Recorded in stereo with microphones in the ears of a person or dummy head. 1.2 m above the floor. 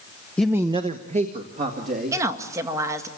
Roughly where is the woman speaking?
Centre.